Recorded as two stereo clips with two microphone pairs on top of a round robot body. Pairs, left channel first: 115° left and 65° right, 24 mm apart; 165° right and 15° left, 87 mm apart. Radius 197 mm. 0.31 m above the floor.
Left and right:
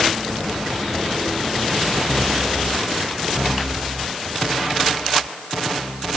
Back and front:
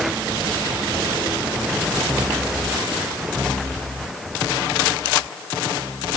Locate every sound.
Only background noise.